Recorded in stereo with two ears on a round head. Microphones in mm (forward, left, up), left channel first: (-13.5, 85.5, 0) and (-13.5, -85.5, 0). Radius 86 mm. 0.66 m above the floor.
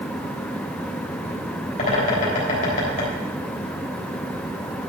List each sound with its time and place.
1.8 s a bird: 40° left (ahead or behind), 3.5 m